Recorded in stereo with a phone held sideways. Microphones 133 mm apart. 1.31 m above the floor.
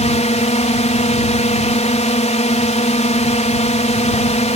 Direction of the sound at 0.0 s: 60° left (ahead or behind).